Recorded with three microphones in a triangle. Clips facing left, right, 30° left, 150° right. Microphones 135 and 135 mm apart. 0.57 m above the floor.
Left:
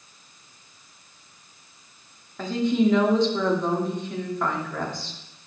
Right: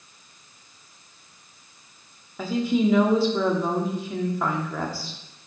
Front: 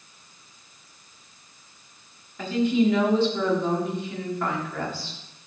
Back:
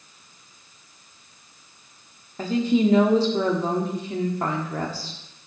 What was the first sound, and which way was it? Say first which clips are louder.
A woman speaking: left 1 dB, back 1 dB; 170° right.